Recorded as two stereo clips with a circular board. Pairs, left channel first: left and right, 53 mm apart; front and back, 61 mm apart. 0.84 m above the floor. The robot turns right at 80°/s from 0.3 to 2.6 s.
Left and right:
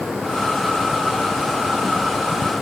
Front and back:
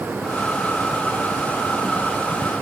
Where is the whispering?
No whispering in this recording.